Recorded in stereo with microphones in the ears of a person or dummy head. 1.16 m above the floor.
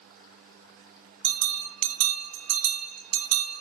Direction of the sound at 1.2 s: 75° right (ahead or behind).